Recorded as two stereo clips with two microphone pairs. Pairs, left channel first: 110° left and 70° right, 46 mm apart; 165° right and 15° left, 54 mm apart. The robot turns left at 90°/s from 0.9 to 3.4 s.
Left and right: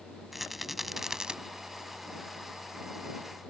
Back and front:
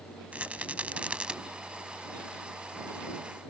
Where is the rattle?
10° left; by 1.4 s 30° right.